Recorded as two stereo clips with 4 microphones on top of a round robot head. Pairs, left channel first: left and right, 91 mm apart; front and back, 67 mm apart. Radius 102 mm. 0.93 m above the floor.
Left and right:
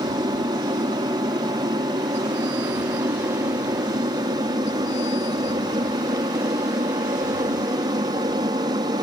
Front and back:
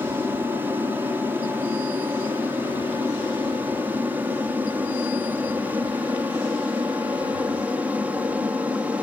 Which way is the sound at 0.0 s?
125° right.